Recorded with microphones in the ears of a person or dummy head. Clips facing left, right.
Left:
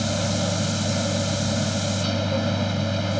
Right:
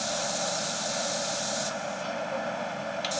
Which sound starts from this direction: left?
A machine running, at 0.0 s.